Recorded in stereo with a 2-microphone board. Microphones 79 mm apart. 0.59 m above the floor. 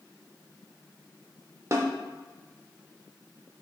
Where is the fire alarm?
No fire alarm in this recording.